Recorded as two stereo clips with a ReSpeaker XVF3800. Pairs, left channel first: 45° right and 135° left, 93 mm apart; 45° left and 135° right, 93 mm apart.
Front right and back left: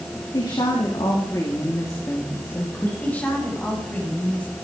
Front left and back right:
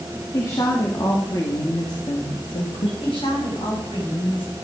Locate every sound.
0.3 s a woman speaking: 10° right, 3 m; by 2.9 s 25° left, 2.5 m
3.0 s a woman speaking: 30° left, 7.5 m